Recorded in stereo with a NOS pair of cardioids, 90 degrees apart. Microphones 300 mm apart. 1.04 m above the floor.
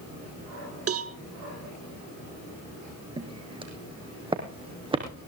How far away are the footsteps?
About 3.5 m.